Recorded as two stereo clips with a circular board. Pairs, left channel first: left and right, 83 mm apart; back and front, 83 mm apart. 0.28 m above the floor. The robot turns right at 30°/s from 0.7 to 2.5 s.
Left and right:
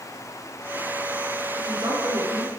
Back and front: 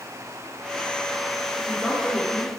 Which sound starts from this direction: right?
A woman speaking, at 1.6 s.